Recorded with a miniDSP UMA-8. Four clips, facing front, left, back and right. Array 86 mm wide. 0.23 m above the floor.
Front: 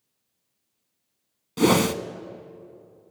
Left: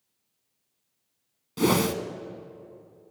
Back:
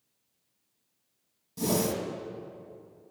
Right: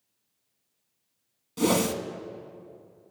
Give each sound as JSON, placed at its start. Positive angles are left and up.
{"t": 1.6, "sound": "a whoosh", "azimuth_deg": 15, "distance_m": 0.5}